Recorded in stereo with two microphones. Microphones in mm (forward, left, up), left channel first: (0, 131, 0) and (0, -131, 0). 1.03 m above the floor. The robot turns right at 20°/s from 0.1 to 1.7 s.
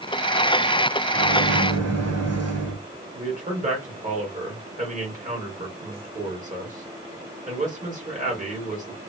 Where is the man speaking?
30° right (ahead or behind), 1.7 m.